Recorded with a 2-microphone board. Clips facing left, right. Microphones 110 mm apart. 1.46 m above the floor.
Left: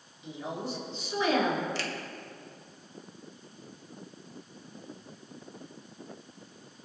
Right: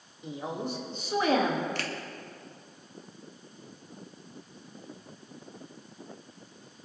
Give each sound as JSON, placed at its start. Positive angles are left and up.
{"t": 0.2, "sound": "a woman speaking", "side_deg": -45, "distance_m": 3.0}
{"t": 1.8, "sound": "a finger snap", "side_deg": -50, "distance_m": 1.5}